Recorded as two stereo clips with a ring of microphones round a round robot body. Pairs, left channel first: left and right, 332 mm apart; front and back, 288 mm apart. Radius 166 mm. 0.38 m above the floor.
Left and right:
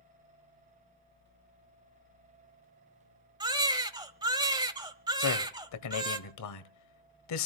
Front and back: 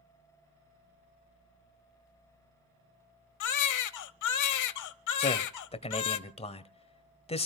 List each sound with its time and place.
3.4 s a baby crying: 15° right, 1.1 m
5.2 s a man speaking: 65° left, 1.7 m